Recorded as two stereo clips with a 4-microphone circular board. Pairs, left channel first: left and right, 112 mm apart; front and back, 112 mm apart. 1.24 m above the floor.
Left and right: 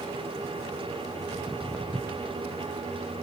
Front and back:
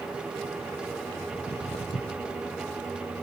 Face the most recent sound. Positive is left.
turn(degrees=-10)